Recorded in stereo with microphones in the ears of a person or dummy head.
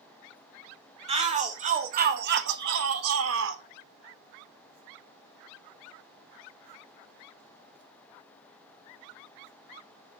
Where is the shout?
25° right (ahead or behind), 1.6 m; by 3.6 s 70° right (ahead or behind), 1.0 m.